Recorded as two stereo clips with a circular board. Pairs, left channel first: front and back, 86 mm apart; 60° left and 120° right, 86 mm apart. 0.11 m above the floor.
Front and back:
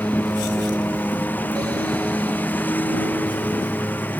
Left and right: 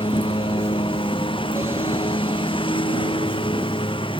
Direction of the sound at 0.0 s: 70° left.